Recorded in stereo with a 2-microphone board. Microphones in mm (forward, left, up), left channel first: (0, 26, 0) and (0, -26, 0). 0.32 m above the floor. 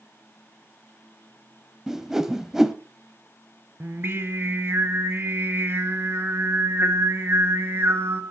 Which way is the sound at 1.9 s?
10° right (ahead or behind).